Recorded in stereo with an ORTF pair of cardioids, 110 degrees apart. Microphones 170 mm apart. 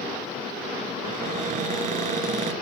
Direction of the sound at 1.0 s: 50° right.